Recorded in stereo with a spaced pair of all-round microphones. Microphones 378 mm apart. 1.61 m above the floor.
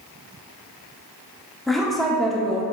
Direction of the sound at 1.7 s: Centre (ahead or behind).